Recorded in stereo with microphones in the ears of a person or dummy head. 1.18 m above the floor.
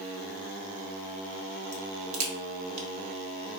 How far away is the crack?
About 0.9 m.